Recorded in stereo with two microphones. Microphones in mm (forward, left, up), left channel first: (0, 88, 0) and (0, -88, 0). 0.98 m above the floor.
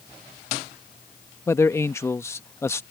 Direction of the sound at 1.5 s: 15° left (ahead or behind).